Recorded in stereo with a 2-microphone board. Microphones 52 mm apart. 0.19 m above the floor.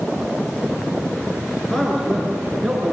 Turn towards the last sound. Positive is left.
turn(degrees=0)  # may be behind; listen again after turning